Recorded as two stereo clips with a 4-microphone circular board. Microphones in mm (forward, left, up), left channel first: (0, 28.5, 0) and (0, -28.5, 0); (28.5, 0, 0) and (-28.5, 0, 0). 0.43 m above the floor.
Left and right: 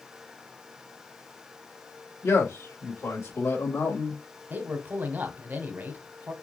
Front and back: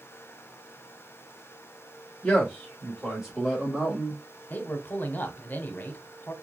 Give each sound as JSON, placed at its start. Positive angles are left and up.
{"t": 2.2, "sound": "a man speaking", "azimuth_deg": 75, "distance_m": 2.5}
{"t": 4.5, "sound": "a man speaking", "azimuth_deg": -45, "distance_m": 1.2}